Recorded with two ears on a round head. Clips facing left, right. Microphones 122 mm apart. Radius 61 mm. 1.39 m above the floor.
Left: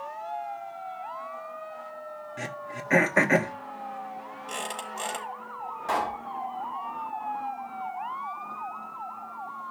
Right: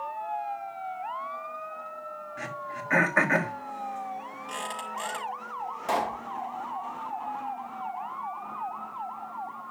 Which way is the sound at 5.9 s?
20° right (ahead or behind).